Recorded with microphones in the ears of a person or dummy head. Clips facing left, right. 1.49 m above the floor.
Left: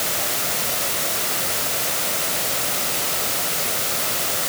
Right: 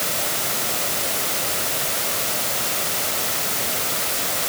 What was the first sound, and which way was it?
Only background noise.